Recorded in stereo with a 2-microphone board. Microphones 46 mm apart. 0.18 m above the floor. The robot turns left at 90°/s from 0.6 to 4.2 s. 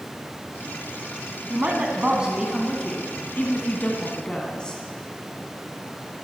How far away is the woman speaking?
About 1.3 m.